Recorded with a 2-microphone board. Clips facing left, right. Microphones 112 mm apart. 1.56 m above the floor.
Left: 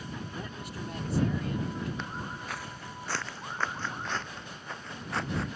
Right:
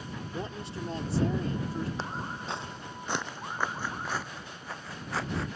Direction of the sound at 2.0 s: 30° right (ahead or behind).